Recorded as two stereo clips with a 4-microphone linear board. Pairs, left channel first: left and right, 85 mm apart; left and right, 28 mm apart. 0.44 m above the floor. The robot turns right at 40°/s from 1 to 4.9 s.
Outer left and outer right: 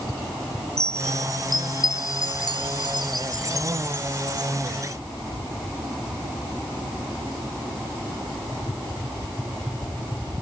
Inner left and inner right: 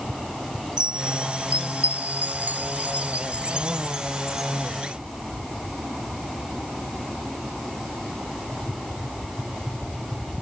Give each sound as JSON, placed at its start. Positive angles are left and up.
{"t": 0.8, "sound": "a chime", "side_deg": -35}